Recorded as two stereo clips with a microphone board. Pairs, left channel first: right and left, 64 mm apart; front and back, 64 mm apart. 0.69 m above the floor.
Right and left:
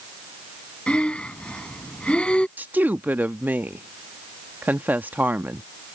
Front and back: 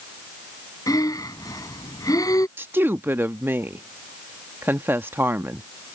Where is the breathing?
20° right.